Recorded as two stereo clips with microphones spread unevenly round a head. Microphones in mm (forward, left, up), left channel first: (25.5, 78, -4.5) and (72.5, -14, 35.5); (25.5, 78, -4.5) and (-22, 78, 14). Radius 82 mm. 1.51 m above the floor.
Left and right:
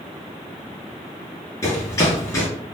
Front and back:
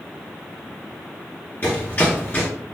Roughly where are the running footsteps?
Ahead left.